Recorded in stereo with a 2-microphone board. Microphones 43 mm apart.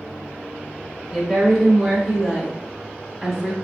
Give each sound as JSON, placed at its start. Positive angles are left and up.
{"t": 1.1, "sound": "a woman speaking", "side_deg": -10, "distance_m": 1.4}